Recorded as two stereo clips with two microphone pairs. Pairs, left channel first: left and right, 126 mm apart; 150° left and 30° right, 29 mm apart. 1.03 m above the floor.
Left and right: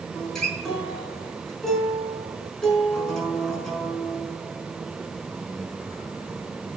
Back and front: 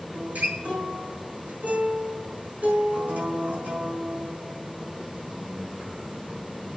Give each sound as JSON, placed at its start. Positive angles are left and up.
{"t": 0.1, "sound": "a guitar", "azimuth_deg": 5, "distance_m": 5.5}